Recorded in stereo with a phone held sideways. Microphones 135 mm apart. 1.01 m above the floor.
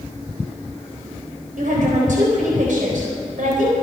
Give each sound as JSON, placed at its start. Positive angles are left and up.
{"t": 1.6, "sound": "a woman speaking", "side_deg": -80, "distance_m": 4.0}